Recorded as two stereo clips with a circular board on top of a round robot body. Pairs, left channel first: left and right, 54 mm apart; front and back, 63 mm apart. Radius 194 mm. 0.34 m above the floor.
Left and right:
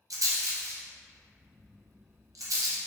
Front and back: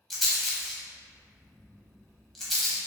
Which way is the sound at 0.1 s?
85° right.